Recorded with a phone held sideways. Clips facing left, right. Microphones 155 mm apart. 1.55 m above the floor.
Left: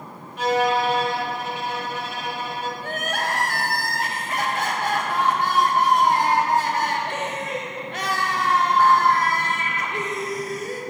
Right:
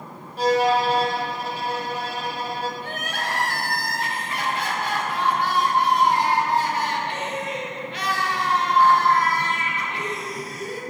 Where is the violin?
35° right (ahead or behind), 0.6 m.